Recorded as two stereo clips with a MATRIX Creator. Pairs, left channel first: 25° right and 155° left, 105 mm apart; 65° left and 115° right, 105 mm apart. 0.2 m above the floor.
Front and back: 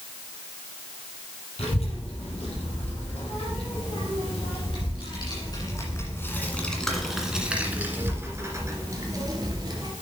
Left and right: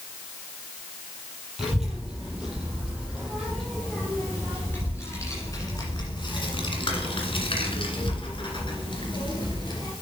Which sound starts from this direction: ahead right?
A child speaking, at 1.6 s.